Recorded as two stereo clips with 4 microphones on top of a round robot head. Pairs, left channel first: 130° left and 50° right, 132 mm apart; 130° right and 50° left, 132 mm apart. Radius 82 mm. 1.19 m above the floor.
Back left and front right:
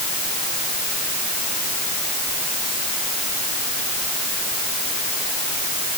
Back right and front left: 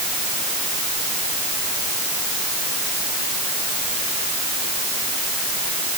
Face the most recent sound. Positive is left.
No sound to turn to.